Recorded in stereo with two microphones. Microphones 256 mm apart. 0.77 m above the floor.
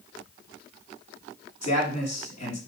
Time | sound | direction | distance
1.6 | a man speaking | 80° left | 5 m